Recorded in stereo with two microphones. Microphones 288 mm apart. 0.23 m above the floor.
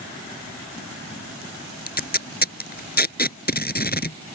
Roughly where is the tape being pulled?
Left.